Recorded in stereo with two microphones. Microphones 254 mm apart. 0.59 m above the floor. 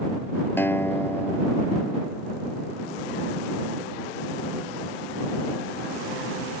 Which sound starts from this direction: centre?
A guitar, at 0.6 s.